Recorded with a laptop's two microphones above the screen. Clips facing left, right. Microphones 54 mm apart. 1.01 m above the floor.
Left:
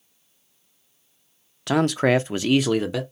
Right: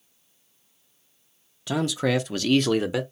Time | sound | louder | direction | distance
1.7 | a man speaking | left 5 dB | 60° left (ahead or behind) | 0.6 m